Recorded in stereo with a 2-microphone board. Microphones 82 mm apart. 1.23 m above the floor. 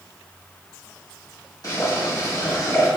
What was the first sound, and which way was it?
Boiling, 50° left (ahead or behind).